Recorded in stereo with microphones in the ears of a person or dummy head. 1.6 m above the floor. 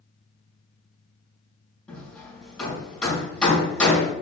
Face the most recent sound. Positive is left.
turn(degrees=5)  # may be behind; listen again after turning